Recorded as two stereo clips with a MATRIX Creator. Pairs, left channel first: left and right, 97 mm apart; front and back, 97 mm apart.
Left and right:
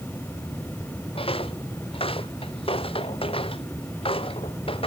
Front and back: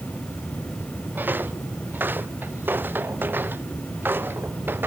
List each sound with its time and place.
1.1 s footsteps: 110° left